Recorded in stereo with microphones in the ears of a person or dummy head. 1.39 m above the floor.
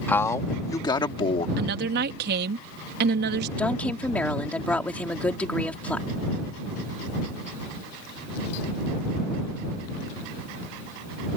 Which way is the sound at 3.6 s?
5° left (ahead or behind).